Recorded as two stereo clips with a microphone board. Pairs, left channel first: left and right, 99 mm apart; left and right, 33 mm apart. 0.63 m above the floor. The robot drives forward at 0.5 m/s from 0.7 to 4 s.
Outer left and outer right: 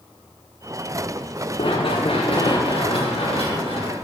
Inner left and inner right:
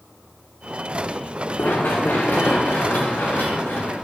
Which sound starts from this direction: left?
Running footsteps, at 1.6 s.